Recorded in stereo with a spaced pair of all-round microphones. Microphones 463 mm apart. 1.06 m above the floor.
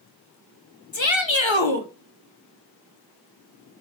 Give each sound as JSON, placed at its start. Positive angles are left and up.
{"t": 0.9, "sound": "a shout", "side_deg": 70, "distance_m": 2.0}